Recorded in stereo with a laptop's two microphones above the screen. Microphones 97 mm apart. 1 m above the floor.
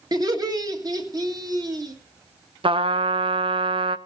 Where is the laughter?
40° right (ahead or behind), 1.5 m.